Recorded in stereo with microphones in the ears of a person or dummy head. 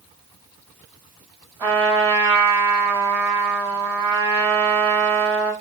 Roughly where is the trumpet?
Centre.